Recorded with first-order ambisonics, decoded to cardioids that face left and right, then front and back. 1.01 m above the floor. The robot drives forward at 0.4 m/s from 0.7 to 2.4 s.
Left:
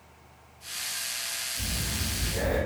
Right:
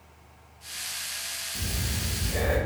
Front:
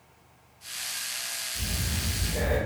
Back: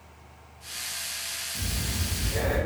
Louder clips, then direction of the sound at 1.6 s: Left 1 dB, even; 115° right.